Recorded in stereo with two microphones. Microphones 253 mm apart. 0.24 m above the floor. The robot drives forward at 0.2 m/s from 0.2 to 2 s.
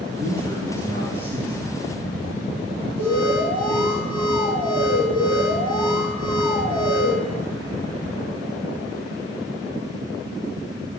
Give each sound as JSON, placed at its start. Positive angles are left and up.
{"t": 0.2, "sound": "a man speaking", "side_deg": -40, "distance_m": 3.0}
{"t": 3.0, "sound": "an alarm", "side_deg": -70, "distance_m": 6.5}